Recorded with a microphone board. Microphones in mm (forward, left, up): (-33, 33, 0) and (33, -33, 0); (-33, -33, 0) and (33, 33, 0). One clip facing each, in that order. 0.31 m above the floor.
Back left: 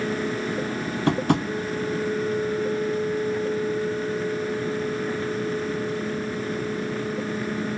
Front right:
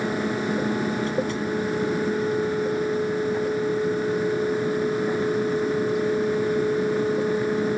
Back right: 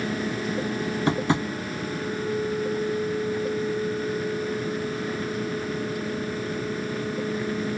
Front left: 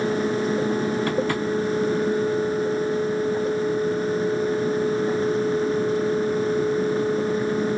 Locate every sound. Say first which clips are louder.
1.1 s tapping: back left 3 dB, front left 1 dB; 155° left, 0.7 m